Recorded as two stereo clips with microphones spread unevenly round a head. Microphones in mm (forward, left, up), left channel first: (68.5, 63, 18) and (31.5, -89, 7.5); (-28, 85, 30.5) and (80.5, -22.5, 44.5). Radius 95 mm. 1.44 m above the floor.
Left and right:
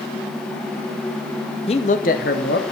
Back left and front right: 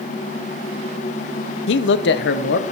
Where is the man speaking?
140° left, 0.5 m; by 2.7 s 120° left, 1.2 m.